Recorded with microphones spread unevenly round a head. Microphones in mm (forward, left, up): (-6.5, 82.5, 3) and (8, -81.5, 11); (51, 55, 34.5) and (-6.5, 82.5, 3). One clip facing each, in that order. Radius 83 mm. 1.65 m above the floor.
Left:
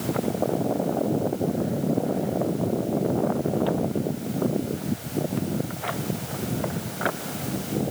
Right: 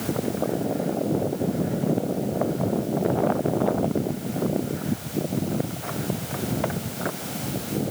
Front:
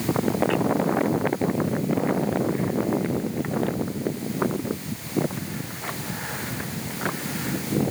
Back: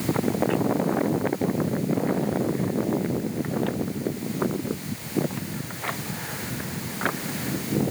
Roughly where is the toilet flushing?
No toilet flushing in this recording.